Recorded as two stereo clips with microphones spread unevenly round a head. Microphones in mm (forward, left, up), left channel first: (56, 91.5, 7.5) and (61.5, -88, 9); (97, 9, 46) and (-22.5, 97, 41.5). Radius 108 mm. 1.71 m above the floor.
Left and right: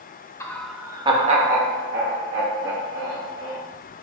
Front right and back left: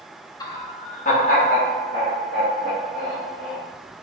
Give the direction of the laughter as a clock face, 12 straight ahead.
11 o'clock.